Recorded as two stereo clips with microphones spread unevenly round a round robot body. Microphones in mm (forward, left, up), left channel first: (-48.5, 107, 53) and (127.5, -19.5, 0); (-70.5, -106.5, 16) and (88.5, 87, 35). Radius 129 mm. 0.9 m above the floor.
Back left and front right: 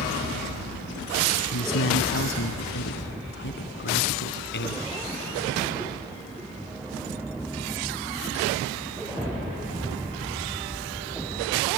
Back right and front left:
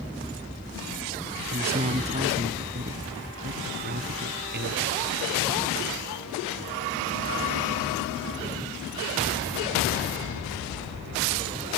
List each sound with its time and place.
1.5 s a man speaking: 120° left; by 4.8 s 105° left